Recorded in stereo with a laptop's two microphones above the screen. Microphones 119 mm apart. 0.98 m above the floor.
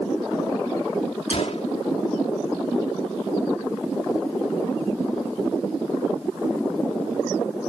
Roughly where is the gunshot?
Left.